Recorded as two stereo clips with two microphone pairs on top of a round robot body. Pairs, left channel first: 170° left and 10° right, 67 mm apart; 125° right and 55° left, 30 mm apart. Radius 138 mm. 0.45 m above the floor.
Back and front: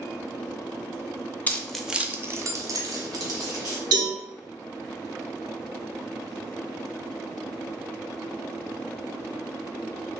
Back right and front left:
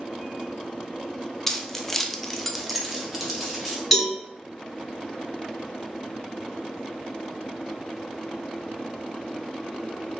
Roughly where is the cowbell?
Ahead right.